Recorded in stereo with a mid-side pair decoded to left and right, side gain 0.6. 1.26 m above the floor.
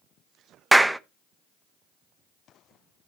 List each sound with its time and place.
0.7 s a clap: 5° right, 0.9 m